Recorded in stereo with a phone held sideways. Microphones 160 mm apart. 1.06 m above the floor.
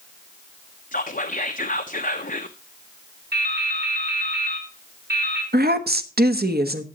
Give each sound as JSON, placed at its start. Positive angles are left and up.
{"t": 0.9, "sound": "whispering", "side_deg": 60, "distance_m": 0.7}
{"t": 3.3, "sound": "dripping", "side_deg": -80, "distance_m": 4.0}
{"t": 5.5, "sound": "a woman speaking", "side_deg": -80, "distance_m": 1.2}